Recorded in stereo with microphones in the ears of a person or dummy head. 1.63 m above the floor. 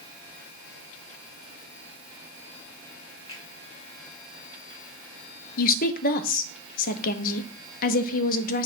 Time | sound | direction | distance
3.3 | a finger snap | 35° left (ahead or behind) | 2.5 m
5.6 | a woman speaking | 45° left (ahead or behind) | 0.9 m